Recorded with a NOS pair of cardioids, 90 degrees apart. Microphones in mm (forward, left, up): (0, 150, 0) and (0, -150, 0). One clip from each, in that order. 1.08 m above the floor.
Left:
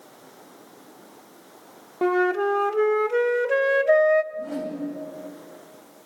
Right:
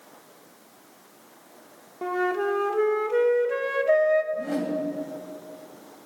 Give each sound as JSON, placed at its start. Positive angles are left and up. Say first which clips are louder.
{"t": 2.0, "sound": "a flute", "louder": "left 4 dB", "azimuth_deg": 40, "distance_m": 0.6}
{"t": 4.3, "sound": "a whoosh", "louder": "right 3 dB", "azimuth_deg": -5, "distance_m": 3.0}